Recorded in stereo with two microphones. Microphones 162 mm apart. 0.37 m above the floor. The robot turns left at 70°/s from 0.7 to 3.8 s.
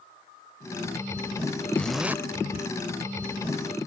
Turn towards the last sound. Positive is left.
turn(degrees=-130)